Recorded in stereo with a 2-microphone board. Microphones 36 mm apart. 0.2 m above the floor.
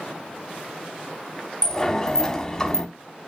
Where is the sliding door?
20° left (ahead or behind), 1.0 m.